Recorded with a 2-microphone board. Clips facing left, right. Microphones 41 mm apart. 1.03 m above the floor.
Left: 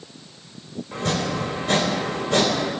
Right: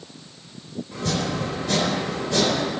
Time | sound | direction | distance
0.9 | chopping | 35° left (ahead or behind) | 3 m